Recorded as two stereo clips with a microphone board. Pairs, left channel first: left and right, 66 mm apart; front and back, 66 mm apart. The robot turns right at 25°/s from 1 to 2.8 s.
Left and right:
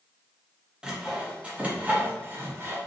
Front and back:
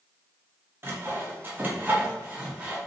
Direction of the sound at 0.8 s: 155° right.